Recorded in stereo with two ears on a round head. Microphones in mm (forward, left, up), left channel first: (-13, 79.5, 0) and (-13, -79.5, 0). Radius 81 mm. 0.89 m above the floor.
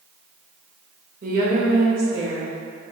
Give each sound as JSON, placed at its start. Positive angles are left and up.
{"t": 1.2, "sound": "a woman speaking", "side_deg": -50, "distance_m": 1.2}